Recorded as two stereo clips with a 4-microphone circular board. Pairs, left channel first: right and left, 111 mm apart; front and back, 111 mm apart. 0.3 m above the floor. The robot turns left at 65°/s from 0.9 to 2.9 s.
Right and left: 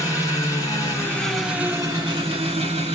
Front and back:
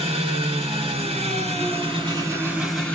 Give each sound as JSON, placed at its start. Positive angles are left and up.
{"t": 0.0, "sound": "an engine running", "azimuth_deg": -150, "distance_m": 3.5}